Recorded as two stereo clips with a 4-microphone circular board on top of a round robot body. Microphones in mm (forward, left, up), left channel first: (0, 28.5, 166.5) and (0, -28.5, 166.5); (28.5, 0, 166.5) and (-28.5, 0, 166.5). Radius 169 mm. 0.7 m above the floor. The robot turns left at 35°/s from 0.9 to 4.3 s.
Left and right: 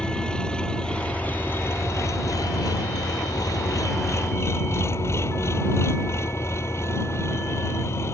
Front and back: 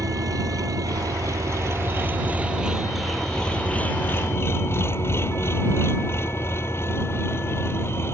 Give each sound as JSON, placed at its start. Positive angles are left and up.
{"t": 0.0, "sound": "an engine running", "azimuth_deg": 165}